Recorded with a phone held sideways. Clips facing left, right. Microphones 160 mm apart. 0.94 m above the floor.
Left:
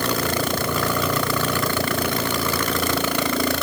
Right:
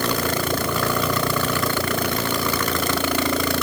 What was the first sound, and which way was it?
Only background noise.